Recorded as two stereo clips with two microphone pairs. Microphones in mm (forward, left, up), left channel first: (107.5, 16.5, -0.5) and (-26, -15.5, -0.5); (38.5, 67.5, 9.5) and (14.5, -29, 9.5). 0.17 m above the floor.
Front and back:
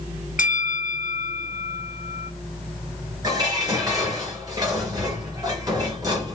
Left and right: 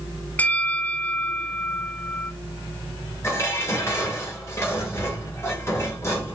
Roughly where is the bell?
Ahead.